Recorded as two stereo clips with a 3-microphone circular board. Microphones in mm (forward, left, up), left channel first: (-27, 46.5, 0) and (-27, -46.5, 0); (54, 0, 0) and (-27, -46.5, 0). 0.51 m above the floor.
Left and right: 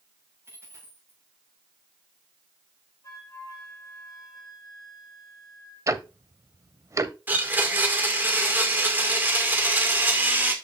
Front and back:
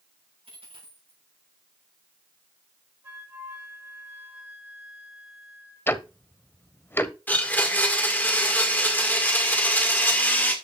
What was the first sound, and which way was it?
A dropped coin, 155° right.